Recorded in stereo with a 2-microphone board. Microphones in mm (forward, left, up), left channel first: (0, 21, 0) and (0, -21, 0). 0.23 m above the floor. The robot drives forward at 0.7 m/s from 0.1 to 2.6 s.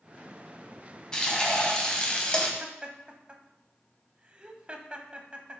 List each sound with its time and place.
1.1 s frying: 15° left (ahead or behind), 1.8 m; by 2.5 s 20° left (ahead or behind), 1.4 m
2.6 s laughter: 25° right (ahead or behind), 1.0 m